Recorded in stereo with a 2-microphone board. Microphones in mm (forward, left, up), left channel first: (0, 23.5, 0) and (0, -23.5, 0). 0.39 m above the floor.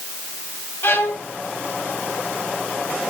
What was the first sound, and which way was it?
A violin, 55° left (ahead or behind).